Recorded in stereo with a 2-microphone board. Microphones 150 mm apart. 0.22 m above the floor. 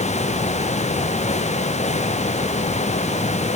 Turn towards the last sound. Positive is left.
No sound to turn to.